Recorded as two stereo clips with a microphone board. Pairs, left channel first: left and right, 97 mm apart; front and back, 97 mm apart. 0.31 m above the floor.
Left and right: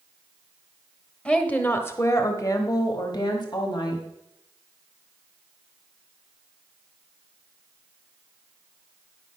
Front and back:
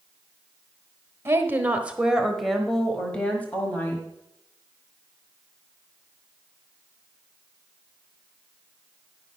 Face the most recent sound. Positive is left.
turn(degrees=65)